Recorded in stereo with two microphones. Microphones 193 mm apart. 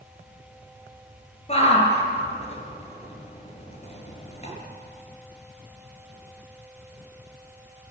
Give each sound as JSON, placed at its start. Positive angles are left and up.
{"t": 1.5, "sound": "a shout", "side_deg": 35, "distance_m": 6.5}